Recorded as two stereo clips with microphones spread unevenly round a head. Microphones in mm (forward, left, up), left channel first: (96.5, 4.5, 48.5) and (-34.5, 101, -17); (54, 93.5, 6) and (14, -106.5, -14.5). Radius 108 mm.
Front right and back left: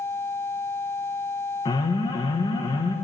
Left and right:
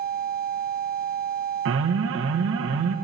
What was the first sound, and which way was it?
An alarm, 115° right.